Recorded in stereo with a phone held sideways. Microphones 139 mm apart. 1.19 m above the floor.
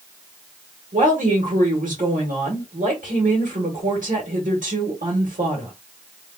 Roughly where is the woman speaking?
Right.